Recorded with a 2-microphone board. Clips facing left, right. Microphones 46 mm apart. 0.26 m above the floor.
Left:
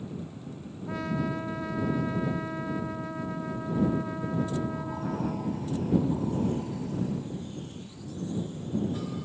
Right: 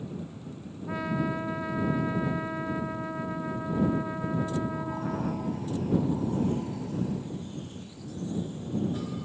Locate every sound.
0.9 s a trumpet: 10° right (ahead or behind)